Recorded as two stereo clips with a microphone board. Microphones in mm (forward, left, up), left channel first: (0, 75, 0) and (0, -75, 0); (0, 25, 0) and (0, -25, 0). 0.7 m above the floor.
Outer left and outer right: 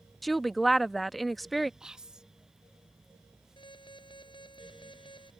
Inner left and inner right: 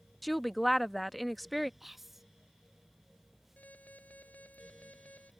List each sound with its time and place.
0.2 s a woman speaking: centre (ahead or behind)
1.8 s whispering: 5° right (ahead or behind)
3.6 s an alarm: 35° left (ahead or behind)